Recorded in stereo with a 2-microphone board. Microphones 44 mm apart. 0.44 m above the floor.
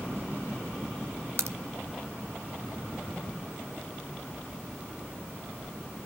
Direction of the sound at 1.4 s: 70° right (ahead or behind).